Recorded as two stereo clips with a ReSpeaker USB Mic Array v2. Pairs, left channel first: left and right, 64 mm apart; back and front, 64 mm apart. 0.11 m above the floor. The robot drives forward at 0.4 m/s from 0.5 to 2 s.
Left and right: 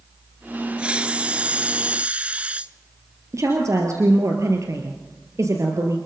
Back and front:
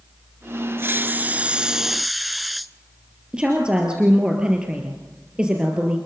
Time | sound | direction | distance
0.8 | a hiss | 25° right | 0.8 m
3.3 | a woman speaking | 70° right | 2.5 m